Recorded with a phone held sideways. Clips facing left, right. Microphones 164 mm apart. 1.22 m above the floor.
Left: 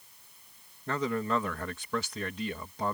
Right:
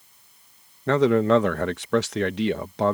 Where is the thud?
No thud in this recording.